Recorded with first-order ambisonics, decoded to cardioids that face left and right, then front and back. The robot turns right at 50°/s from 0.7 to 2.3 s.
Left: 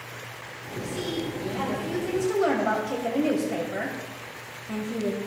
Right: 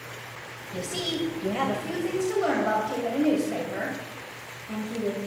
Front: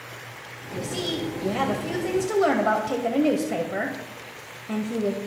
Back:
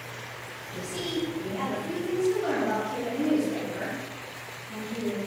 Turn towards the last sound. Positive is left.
turn(degrees=5)